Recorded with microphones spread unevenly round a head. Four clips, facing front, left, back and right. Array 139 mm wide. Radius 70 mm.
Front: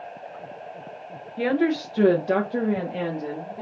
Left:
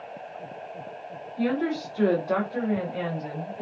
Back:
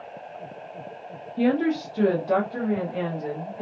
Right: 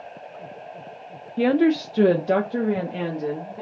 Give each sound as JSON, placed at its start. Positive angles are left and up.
{"t": 1.4, "sound": "a woman speaking", "azimuth_deg": -110, "distance_m": 0.6}